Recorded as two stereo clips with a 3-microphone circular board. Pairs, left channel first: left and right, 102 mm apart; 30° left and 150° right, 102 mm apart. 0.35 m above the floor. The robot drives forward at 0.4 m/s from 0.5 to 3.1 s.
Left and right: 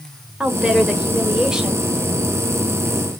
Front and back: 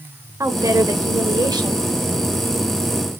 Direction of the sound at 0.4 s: 165° right.